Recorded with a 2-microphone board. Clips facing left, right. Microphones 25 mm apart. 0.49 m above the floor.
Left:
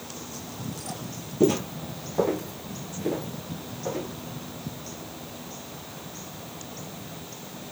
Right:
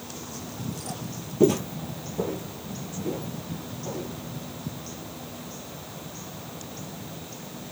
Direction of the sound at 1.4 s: 10° right (ahead or behind).